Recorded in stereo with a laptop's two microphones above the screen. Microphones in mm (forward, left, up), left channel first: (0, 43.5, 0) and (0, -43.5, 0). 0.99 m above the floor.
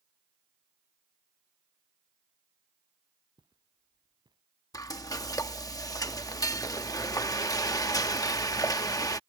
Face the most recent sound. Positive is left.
turn(degrees=45)  # may be behind; listen again after turning